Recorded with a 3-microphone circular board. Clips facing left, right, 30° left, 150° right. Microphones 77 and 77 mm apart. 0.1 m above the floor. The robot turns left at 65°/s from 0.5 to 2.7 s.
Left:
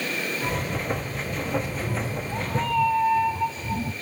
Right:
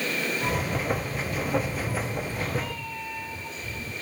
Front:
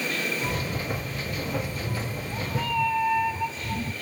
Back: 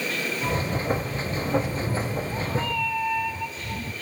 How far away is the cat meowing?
About 1.2 m.